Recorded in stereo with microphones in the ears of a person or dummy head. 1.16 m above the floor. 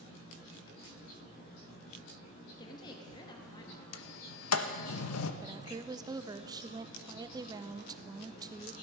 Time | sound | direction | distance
2.6 | a woman speaking | 30° left (ahead or behind) | 1.3 m
3.9 | a sliding door | 75° left (ahead or behind) | 0.8 m
5.4 | a woman speaking | 20° right (ahead or behind) | 0.6 m